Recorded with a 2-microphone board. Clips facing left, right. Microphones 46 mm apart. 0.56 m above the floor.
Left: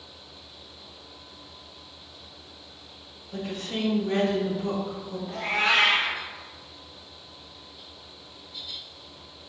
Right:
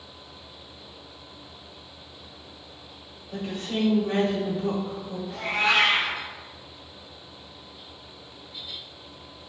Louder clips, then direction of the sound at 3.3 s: Right 2 dB; 45° right (ahead or behind).